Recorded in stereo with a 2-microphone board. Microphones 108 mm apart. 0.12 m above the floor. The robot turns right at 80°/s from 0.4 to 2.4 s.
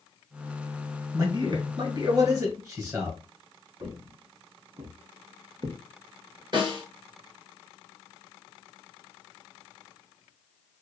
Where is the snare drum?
45° right (ahead or behind), 1.3 m.